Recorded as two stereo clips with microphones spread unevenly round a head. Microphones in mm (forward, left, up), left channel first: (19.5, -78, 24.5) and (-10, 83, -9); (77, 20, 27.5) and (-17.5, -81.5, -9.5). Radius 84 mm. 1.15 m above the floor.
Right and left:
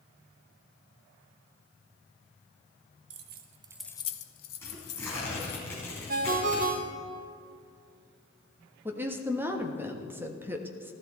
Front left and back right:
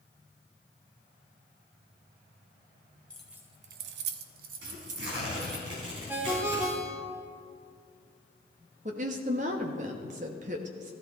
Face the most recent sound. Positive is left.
turn(degrees=180)